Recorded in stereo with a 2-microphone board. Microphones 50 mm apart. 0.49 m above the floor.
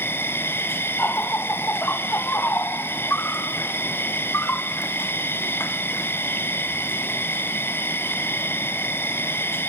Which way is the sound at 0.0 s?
50° left (ahead or behind).